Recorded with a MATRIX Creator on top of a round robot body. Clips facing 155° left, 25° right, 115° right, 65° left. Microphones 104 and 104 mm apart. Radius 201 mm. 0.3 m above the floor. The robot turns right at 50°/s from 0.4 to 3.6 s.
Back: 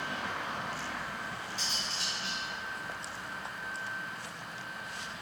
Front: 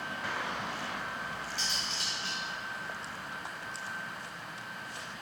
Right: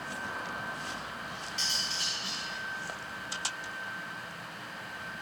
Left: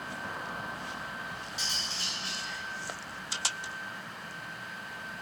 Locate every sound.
1.6 s cutlery clinking: 15° right, 1.9 m; by 2.4 s 30° left, 1.9 m